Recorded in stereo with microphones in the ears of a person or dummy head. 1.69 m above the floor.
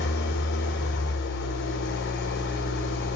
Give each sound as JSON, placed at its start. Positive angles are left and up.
{"t": 0.0, "sound": "an engine running", "side_deg": 55, "distance_m": 2.5}